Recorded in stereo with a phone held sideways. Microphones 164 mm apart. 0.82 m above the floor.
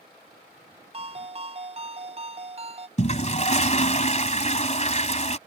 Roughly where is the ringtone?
Right.